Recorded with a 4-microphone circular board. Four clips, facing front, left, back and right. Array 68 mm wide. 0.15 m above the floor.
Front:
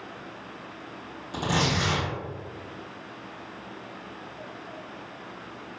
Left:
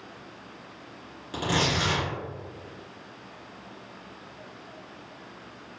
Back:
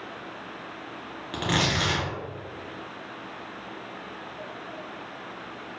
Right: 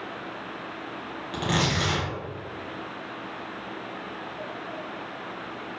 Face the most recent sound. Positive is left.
turn(degrees=-160)